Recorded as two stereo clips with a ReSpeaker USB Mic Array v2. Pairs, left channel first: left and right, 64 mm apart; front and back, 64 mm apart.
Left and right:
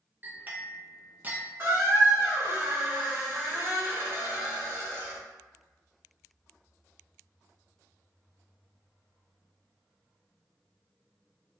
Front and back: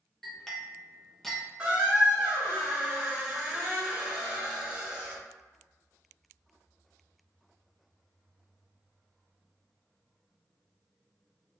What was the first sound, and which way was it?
A clink, 75° right.